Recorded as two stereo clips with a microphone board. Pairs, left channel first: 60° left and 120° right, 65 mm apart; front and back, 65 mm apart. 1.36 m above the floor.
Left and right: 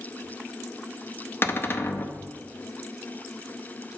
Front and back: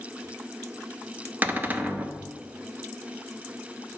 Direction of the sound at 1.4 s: 115° left.